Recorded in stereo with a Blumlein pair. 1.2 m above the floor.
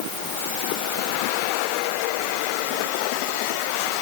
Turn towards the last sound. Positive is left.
No sound to turn to.